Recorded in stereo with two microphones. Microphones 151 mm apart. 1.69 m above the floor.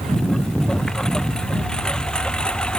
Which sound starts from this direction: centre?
A lawn mower, at 0.0 s.